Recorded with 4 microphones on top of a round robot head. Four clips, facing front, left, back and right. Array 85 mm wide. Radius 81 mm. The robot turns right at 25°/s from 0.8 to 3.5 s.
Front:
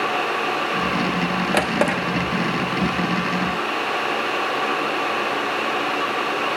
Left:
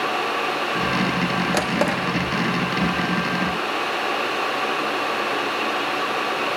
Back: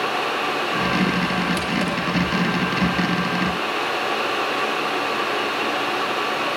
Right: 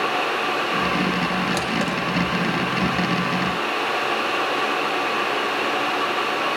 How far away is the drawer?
About 1.1 m.